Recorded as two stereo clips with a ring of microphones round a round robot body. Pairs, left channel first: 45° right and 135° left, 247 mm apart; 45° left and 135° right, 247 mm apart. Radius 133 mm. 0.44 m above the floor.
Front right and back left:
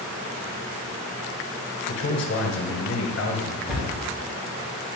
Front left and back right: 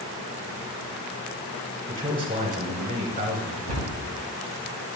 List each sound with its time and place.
1.9 s a man speaking: 80° right, 2.5 m
3.7 s a cupboard door: 135° right, 3 m